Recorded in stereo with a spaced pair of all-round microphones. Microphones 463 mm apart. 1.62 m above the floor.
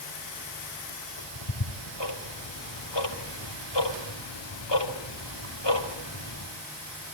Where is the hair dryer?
I don't hear a hair dryer.